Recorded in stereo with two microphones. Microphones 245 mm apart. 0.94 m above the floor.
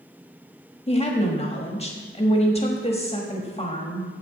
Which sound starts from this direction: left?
A woman speaking, at 0.9 s.